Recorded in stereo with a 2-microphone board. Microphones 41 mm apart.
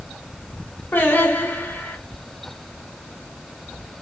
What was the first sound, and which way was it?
Singing, 60° left (ahead or behind).